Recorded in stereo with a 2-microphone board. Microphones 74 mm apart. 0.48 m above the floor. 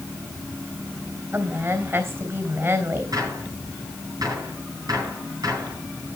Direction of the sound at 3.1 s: 65° right (ahead or behind).